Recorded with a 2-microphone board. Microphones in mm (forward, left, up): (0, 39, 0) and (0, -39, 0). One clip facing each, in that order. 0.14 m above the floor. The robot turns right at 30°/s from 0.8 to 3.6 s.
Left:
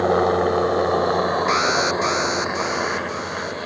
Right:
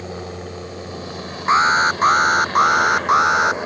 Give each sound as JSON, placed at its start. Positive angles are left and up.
{"t": 0.0, "sound": "a helicopter", "azimuth_deg": 110}
{"t": 1.5, "sound": "an alarm", "azimuth_deg": -150}